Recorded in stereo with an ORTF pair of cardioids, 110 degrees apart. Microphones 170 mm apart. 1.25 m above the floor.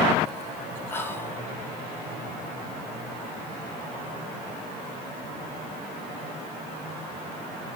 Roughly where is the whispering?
Ahead.